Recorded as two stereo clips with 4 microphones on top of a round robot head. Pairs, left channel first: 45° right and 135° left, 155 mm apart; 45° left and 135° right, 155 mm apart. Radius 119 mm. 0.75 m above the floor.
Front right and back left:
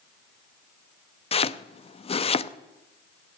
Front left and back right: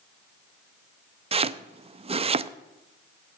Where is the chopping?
90° right, 0.6 m.